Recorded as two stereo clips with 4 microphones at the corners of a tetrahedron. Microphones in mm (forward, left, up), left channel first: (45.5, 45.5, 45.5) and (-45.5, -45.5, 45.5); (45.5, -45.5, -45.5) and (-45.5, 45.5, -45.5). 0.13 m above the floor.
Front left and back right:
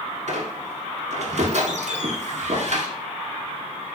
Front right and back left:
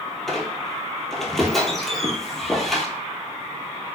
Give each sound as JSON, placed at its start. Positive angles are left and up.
{"t": 0.3, "sound": "a squeak", "azimuth_deg": -130, "distance_m": 0.6}